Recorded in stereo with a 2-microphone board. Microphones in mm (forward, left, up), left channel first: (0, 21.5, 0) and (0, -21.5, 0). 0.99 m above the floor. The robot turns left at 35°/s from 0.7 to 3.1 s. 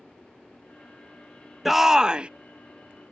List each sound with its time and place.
1.6 s a shout: 5° right (ahead or behind); by 2.3 s 25° right (ahead or behind)